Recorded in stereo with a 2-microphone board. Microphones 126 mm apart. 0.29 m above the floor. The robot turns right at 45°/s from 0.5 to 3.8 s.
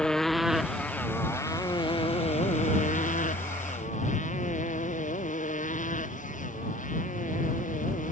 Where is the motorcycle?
5° left (ahead or behind); by 8.1 s 85° left.